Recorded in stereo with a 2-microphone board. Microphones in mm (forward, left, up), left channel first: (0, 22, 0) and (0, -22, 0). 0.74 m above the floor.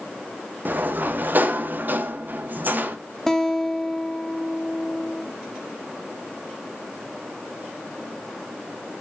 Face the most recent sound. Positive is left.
turn(degrees=10)  # may be behind; listen again after turning